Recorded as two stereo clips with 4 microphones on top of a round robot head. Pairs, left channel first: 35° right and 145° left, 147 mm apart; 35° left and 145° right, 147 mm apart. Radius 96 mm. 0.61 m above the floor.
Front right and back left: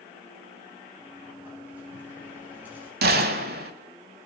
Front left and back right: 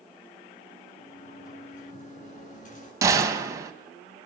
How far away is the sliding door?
About 9 m.